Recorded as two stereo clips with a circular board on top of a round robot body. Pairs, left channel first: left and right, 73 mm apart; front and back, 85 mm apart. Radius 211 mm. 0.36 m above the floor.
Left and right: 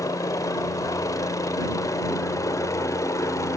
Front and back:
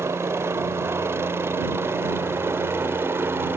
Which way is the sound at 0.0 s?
125° left.